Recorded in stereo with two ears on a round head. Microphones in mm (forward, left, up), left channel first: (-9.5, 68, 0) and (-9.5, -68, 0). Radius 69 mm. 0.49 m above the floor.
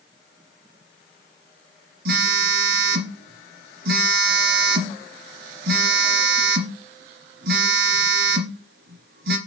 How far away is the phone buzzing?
About 2 m.